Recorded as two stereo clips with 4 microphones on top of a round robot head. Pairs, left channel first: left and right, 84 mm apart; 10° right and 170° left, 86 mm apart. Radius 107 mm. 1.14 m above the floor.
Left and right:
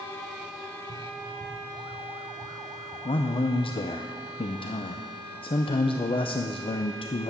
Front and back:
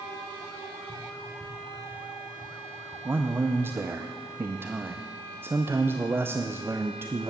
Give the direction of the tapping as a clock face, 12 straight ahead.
10 o'clock.